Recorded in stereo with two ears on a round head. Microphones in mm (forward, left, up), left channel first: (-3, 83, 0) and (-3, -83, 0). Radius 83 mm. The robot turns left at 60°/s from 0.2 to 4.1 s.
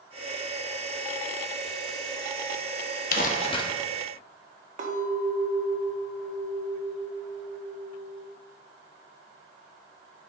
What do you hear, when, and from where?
3.1 s crumpling: 55° left, 1.1 m; by 3.6 s 25° left, 1.1 m
4.8 s a clink: 45° right (ahead or behind), 1.9 m